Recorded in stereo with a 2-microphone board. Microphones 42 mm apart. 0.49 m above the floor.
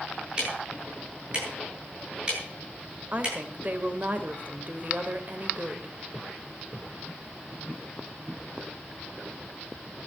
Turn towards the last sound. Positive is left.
turn(degrees=-40)  # may be behind; listen again after turning